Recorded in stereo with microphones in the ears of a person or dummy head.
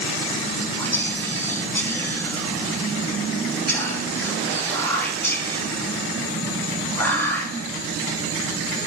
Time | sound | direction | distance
0.8 | whispering | 5° left (ahead or behind) | 2.5 m